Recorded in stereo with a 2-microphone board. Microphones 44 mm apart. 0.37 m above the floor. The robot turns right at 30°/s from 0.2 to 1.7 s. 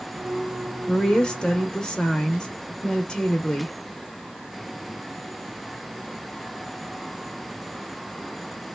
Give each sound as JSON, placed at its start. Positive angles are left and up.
{"t": 0.9, "sound": "a woman speaking", "side_deg": 20, "distance_m": 0.8}